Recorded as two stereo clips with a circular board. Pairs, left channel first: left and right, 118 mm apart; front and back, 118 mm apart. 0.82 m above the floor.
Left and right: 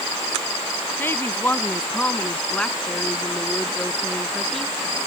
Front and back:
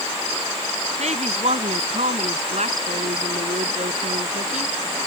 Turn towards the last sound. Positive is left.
turn(degrees=175)